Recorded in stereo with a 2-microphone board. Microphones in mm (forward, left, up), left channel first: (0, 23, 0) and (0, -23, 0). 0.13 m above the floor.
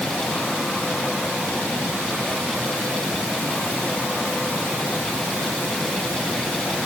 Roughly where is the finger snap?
I don't hear a finger snap.